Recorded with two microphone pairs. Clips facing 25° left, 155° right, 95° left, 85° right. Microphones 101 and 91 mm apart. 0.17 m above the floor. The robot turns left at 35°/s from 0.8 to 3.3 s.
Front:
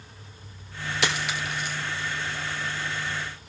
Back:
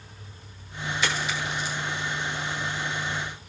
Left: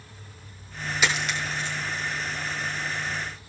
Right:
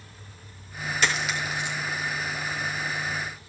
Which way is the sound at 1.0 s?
15° left.